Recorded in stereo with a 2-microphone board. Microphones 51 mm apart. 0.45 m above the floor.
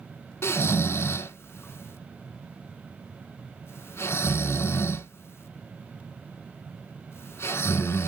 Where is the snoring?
50° left (ahead or behind), 0.8 m.